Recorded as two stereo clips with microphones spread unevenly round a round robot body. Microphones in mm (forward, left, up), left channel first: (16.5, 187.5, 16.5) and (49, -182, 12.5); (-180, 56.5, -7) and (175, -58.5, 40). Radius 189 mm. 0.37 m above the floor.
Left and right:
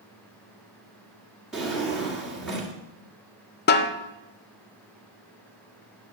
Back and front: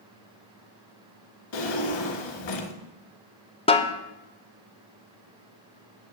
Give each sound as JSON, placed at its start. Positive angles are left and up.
{"t": 1.5, "sound": "a drawer", "azimuth_deg": -175, "distance_m": 1.6}
{"t": 3.7, "sound": "a snare drum", "azimuth_deg": 120, "distance_m": 0.5}